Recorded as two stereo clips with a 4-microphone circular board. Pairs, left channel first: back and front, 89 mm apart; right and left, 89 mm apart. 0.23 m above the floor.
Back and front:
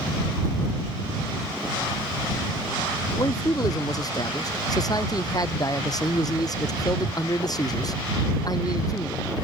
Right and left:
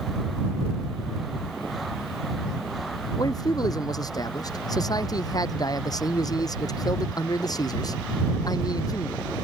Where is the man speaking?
135° right.